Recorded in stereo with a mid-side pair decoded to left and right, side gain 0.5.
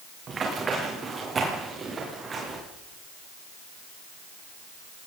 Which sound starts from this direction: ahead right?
Running footsteps, at 0.3 s.